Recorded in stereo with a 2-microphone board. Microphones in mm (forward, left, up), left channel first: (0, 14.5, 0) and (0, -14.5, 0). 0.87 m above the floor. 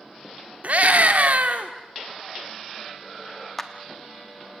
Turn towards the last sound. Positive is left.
turn(degrees=15)  # may be behind; listen again after turning